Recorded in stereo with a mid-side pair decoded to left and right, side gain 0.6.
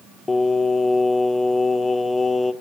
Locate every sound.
0.3 s singing: 20° left, 1.7 m